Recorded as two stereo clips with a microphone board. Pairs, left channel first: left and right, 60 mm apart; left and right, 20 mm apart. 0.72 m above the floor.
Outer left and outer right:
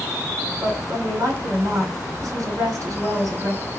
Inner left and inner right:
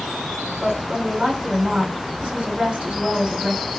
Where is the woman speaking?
60° right (ahead or behind), 2.5 m.